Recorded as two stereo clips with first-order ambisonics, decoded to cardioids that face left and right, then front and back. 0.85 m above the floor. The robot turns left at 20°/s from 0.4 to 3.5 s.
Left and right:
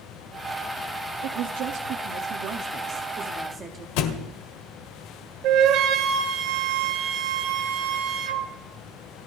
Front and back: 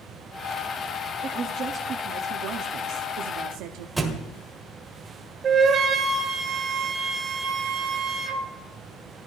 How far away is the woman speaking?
About 1.4 m.